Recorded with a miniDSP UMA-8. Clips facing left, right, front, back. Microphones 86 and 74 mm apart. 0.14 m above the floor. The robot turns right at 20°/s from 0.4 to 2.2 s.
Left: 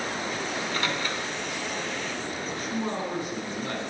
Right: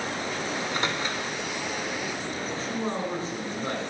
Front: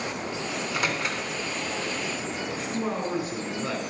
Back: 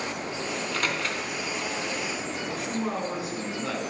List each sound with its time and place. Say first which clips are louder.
0.5 s a microwave: right 1 dB, front 1 dB; 70° right, 0.8 m; by 1.3 s 55° right, 0.8 m
2.4 s a man speaking: even, even; 95° right, 1.8 m